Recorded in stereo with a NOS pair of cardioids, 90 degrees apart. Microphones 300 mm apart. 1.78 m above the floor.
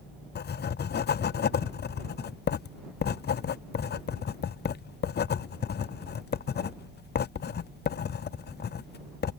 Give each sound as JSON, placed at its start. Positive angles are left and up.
{"t": 0.3, "sound": "writing", "azimuth_deg": 35}